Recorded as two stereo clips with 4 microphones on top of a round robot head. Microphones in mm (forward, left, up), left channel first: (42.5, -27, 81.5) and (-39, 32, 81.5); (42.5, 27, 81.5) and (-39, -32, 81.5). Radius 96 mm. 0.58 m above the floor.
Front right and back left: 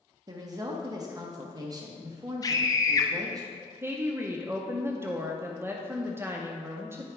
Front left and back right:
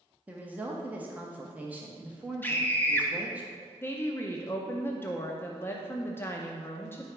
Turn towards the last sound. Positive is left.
turn(degrees=90)